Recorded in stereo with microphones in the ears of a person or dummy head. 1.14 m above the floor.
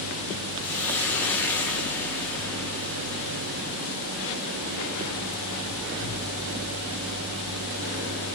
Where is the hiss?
10° left (ahead or behind), 1.5 m.